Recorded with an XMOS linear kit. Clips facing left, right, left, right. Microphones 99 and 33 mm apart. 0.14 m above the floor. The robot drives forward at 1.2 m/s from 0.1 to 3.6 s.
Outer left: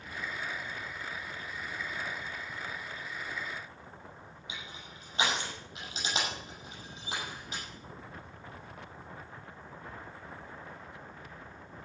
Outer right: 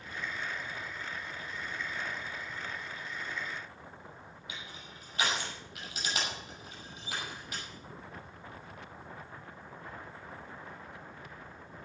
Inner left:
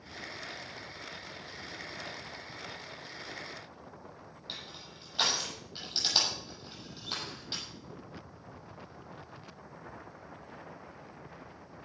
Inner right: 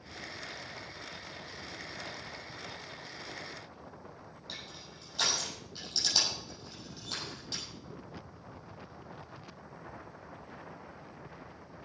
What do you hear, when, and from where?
4.5 s crushing: 25° left (ahead or behind), 6 m